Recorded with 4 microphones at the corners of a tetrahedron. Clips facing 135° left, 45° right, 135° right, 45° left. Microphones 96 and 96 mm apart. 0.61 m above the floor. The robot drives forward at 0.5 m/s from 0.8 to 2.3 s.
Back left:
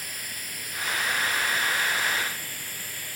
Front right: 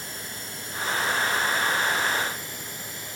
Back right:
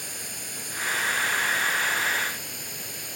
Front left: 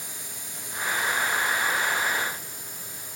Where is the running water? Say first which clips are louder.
Front right 2 dB, back right 3 dB; 110° right; by 3.2 s 115° right.